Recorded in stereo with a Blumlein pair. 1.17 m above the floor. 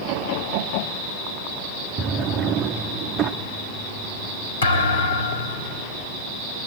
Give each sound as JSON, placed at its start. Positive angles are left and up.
{"t": 2.0, "sound": "a drawer", "azimuth_deg": -30, "distance_m": 1.1}
{"t": 4.6, "sound": "a thud", "azimuth_deg": 65, "distance_m": 3.0}